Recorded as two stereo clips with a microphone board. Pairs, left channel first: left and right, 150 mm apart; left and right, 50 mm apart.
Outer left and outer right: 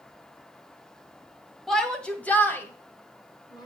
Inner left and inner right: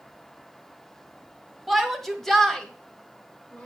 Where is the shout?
Centre (ahead or behind), 1.8 m; by 3.7 s 25° left (ahead or behind), 1.7 m.